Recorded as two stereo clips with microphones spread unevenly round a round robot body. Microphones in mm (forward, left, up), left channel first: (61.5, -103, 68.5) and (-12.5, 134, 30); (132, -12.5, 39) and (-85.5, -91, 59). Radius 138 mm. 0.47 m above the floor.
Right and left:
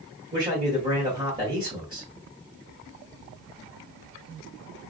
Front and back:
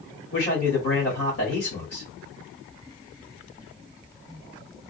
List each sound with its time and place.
0.3 s a man speaking: 45° left, 2.5 m